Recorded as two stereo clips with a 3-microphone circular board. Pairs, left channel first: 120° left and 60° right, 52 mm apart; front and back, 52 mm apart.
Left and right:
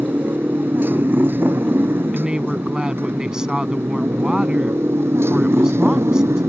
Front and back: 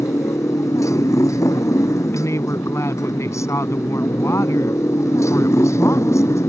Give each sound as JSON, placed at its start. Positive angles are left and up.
{"t": 0.0, "sound": "a motorcycle", "azimuth_deg": -5}
{"t": 2.1, "sound": "a woman speaking", "azimuth_deg": 15}